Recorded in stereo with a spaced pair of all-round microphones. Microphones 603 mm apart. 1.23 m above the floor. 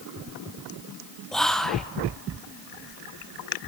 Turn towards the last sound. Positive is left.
turn(degrees=0)  # may be behind; listen again after turning